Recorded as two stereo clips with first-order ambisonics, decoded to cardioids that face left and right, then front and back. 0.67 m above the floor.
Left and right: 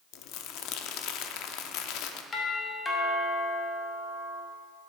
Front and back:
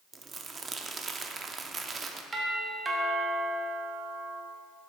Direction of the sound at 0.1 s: 110° left.